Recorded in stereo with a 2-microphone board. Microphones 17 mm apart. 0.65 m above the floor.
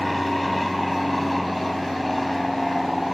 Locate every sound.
0.0 s an aircraft: 5° right (ahead or behind)